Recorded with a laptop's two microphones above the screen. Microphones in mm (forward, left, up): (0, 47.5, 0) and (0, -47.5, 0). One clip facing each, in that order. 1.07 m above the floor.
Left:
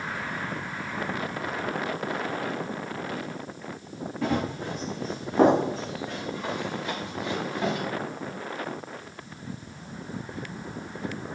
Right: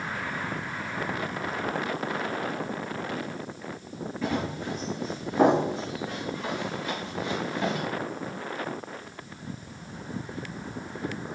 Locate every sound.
4.2 s running footsteps: 60° left (ahead or behind), 3 m; by 7.8 s 20° left (ahead or behind), 5 m